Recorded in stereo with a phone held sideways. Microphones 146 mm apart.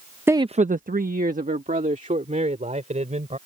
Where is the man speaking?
15° right (ahead or behind); by 3.4 s 55° right (ahead or behind).